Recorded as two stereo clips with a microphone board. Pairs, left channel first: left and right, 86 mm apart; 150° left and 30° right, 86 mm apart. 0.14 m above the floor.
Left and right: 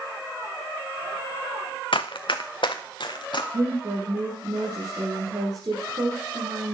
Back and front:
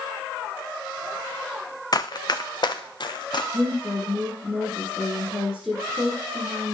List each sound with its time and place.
1.9 s running footsteps: 105° left, 0.8 m; by 3.4 s 120° left, 2 m
3.5 s a woman speaking: 120° right, 3.5 m